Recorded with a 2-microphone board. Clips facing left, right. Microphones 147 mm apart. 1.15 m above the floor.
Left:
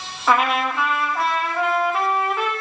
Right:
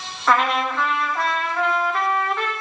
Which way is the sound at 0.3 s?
10° left (ahead or behind).